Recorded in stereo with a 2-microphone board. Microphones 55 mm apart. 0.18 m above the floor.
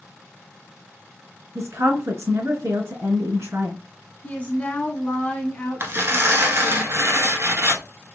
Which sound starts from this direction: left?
A woman speaking, at 4.2 s.